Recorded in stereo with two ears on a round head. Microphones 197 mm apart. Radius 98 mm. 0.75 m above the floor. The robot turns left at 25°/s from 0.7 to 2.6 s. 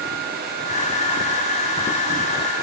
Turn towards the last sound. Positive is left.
No sound to turn to.